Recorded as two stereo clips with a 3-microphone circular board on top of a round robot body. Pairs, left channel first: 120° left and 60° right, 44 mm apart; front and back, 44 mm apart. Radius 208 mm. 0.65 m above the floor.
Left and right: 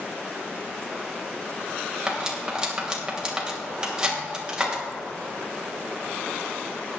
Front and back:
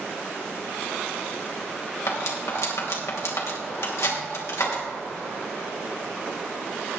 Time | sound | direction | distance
2.1 | cutlery clinking | 15° left | 2.5 m